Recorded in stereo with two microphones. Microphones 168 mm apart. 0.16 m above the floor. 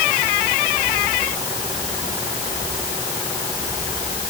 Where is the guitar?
No guitar in this recording.